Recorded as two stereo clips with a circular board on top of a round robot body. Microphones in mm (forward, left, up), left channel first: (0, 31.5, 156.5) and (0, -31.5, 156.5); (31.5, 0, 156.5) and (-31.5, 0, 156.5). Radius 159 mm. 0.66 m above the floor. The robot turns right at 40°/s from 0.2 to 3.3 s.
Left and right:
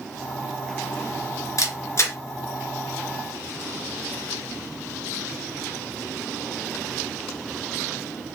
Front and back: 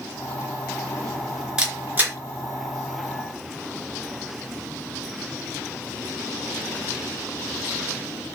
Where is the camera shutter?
110° left, 2.5 m; by 2.2 s 130° left, 2.5 m.